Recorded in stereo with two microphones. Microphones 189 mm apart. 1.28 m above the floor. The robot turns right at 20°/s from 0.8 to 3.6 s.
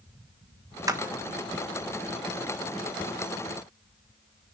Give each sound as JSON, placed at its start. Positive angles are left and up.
{"t": 0.9, "sound": "a clap", "side_deg": -15, "distance_m": 1.2}